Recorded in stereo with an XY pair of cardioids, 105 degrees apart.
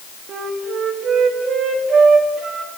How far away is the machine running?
No machine running in this recording.